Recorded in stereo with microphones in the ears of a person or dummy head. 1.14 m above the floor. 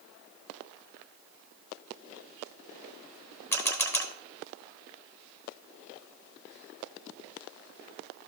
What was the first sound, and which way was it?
A camera shutter, 15° left (ahead or behind).